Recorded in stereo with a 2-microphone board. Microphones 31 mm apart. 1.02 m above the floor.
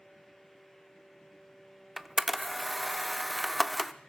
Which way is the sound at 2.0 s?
5° right (ahead or behind).